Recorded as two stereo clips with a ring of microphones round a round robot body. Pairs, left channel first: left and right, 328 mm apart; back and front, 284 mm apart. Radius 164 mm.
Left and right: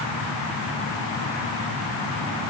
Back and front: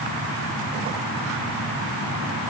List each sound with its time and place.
Only background noise.